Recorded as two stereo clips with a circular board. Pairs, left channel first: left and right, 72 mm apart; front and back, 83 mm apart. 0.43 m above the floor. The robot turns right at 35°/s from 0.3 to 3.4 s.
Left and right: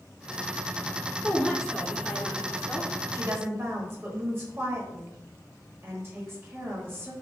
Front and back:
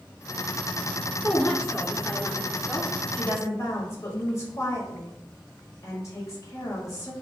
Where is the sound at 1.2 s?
20° right, 0.9 m; by 2.9 s 40° left, 0.9 m.